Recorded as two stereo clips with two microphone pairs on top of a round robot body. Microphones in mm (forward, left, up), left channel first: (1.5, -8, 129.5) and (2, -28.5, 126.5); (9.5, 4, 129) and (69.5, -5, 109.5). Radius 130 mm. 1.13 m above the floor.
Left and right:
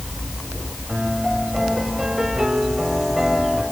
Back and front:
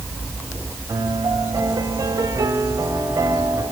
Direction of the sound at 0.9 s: 15° right.